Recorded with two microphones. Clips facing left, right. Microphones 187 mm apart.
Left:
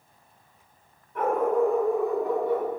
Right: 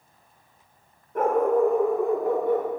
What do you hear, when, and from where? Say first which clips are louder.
1.1 s a dog barking: right 3 dB; 45° right (ahead or behind), 1.2 m; by 2.7 s 50° right (ahead or behind), 1.2 m